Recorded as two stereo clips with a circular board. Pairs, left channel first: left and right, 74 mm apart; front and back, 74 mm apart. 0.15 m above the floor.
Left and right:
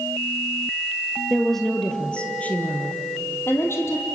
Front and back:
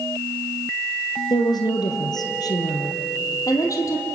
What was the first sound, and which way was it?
A woman speaking, straight ahead.